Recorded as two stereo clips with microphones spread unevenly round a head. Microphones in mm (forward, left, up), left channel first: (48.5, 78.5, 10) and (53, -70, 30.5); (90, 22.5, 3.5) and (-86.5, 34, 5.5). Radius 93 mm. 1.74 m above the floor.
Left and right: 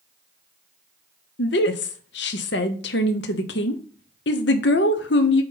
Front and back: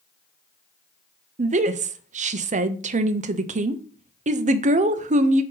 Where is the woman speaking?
125° left, 0.6 m.